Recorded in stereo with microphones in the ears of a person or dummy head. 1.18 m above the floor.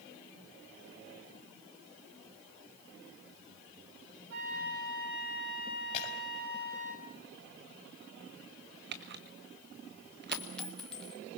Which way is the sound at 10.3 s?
5° left (ahead or behind).